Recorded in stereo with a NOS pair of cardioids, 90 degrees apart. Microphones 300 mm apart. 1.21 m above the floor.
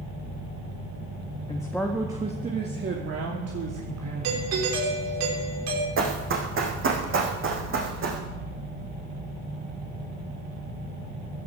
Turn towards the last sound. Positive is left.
turn(degrees=-45)